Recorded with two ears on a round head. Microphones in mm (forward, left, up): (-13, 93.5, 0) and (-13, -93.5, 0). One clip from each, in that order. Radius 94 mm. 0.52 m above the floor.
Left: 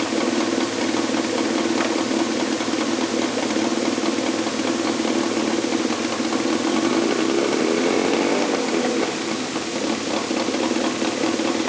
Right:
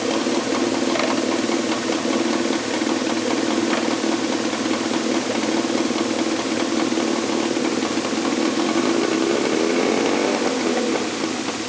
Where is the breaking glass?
I don't hear breaking glass.